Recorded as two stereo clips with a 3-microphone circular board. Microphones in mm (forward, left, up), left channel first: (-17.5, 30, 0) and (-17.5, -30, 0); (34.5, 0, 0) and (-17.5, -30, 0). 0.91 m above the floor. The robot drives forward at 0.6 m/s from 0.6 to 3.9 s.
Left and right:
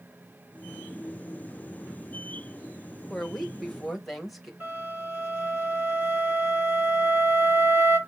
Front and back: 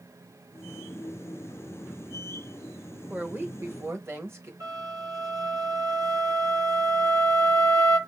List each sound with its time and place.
3.1 s a woman speaking: 170° left, 0.7 m; by 4.5 s 175° left, 1.0 m
4.6 s a flute: 150° right, 3.5 m